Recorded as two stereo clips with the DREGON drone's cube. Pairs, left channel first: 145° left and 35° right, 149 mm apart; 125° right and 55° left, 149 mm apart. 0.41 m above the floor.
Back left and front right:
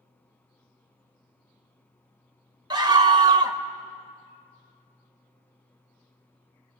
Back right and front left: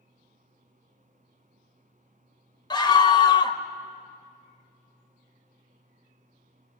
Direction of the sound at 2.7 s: 80° right.